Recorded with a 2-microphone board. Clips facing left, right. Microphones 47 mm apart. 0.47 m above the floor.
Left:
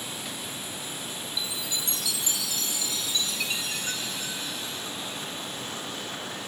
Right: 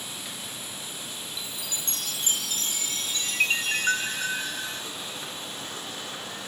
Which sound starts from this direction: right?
A chime, at 1.4 s.